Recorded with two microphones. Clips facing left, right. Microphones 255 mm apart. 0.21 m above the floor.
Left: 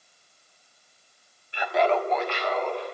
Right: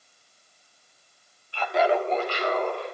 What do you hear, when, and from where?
1.5 s laughter: 20° left (ahead or behind), 1.0 m; by 2.9 s 60° right (ahead or behind), 1.8 m